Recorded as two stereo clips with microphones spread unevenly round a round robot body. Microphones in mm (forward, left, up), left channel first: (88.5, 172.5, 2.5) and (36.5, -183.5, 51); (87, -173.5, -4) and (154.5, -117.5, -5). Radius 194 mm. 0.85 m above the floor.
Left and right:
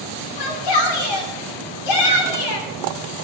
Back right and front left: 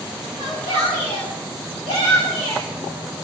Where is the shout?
100° left, 2.5 m.